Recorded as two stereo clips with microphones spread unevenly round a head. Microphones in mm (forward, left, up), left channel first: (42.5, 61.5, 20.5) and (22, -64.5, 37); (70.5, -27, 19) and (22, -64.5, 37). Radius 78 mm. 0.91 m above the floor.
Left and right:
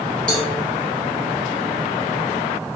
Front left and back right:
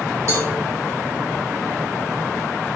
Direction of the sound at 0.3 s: 160° left.